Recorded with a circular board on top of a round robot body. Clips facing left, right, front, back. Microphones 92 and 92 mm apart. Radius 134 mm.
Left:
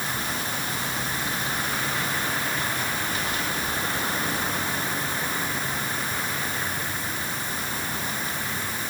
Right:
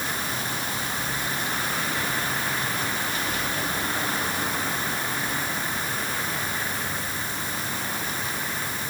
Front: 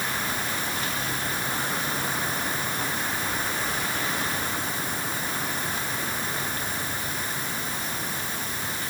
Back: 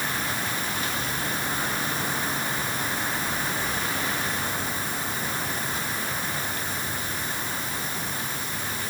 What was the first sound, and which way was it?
Only background noise.